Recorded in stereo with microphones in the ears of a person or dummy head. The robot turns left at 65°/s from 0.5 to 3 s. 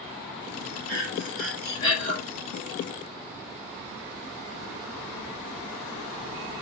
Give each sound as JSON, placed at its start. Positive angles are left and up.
{"t": 0.9, "sound": "breathing", "azimuth_deg": -145, "distance_m": 6.0}